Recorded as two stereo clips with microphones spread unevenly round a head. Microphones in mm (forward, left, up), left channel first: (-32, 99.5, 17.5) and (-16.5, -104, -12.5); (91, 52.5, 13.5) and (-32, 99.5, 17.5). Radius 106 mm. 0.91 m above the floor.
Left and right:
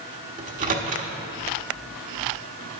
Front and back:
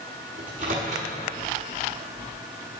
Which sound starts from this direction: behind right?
A microwave, at 0.4 s.